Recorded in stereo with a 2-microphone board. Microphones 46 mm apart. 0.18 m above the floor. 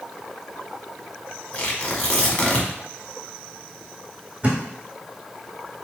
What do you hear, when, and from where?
1.5 s tearing paper: 25° left (ahead or behind), 1.2 m
4.4 s a thud: 30° right (ahead or behind), 1.8 m